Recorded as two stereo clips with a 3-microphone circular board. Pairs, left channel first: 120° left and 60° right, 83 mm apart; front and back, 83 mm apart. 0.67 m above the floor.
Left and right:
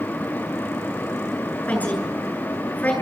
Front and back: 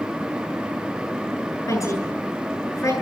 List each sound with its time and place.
1.7 s a woman speaking: 50° left, 8.5 m